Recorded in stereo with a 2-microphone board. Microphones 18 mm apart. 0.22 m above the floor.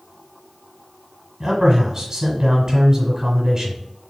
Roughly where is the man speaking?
Right.